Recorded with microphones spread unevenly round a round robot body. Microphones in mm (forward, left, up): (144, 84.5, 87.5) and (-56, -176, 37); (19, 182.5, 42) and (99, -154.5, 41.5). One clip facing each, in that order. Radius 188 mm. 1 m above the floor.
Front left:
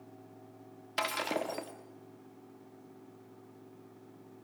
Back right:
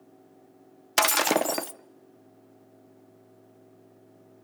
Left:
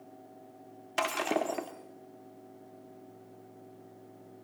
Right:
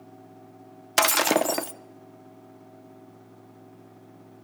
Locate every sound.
1.0 s breaking glass: 105° right, 0.7 m